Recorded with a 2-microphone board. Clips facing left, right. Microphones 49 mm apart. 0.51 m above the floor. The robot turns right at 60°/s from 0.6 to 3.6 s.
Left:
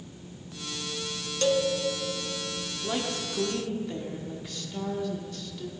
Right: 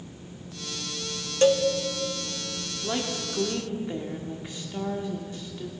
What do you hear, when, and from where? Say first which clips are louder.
1.4 s a cowbell: right 5 dB; 35° right (ahead or behind), 0.7 m; by 1.6 s 25° right (ahead or behind), 0.7 m
2.8 s a woman speaking: right 1 dB; 5° right (ahead or behind), 1.2 m; by 5.7 s 20° right (ahead or behind), 1.2 m